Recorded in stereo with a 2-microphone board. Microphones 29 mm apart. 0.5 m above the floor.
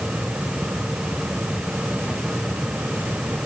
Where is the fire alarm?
No fire alarm in this recording.